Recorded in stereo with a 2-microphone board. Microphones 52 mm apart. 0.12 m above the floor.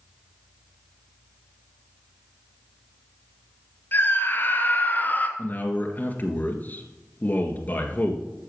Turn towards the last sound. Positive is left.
turn(degrees=35)  # may be behind; listen again after turning